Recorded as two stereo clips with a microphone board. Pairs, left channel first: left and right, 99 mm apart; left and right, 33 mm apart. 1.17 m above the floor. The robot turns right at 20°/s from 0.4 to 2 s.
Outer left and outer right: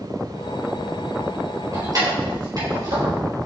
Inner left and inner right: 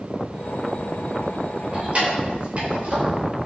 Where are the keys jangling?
35° right (ahead or behind), 4 m; by 3.1 s 40° right (ahead or behind), 4 m.